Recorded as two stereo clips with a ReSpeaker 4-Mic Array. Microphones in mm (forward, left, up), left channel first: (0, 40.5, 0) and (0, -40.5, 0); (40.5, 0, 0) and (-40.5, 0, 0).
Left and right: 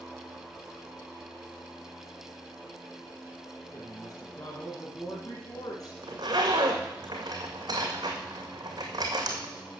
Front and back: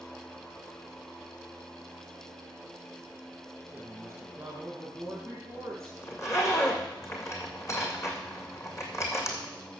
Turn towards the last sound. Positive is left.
turn(degrees=-55)